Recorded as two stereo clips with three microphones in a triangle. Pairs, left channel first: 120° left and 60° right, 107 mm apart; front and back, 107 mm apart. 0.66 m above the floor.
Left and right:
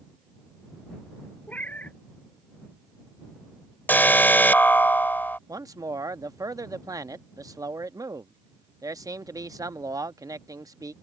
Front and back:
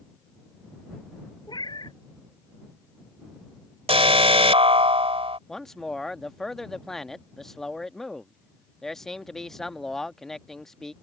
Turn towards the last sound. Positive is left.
turn(degrees=-80)